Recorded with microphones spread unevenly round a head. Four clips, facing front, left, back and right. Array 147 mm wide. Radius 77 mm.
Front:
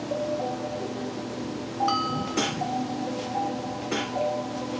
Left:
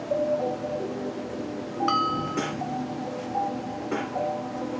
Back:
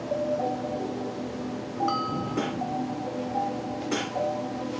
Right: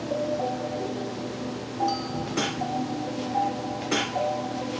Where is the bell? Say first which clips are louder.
Left 4 dB, front 1 dB; 60° left.